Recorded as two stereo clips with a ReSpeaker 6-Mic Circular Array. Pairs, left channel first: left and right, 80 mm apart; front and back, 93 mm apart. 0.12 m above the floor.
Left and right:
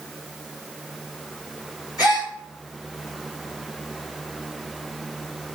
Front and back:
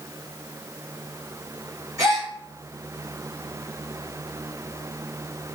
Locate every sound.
2.0 s a gasp: 130° left, 5 m